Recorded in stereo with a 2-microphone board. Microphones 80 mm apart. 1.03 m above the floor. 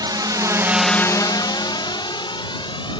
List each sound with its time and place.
0.0 s a drone: 60° right (ahead or behind); by 3.0 s 80° left